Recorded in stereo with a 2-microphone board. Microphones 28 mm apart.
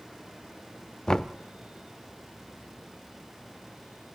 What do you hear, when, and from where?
1.1 s knocking: 30° left (ahead or behind), 0.7 m